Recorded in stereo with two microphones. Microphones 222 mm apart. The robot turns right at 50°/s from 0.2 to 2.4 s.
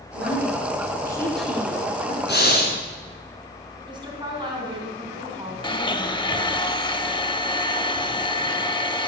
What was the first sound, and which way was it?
A woman speaking, 120° left.